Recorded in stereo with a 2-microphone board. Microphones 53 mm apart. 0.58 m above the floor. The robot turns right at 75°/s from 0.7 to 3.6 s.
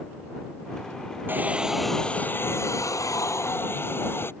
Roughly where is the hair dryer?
Ahead right.